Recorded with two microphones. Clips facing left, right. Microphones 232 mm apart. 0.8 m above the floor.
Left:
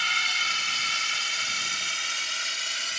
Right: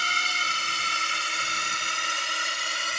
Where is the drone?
55° right (ahead or behind); by 3.0 s 65° right (ahead or behind).